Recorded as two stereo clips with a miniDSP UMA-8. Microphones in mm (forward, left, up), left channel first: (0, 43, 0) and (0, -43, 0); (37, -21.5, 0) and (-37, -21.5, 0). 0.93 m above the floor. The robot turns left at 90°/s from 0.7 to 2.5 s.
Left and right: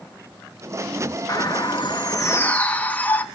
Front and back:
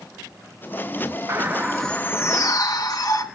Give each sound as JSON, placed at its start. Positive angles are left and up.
{"t": 1.3, "sound": "a bird", "azimuth_deg": 130, "distance_m": 1.5}